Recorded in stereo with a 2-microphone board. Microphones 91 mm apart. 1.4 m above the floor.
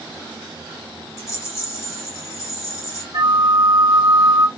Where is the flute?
50° right (ahead or behind), 1.2 m.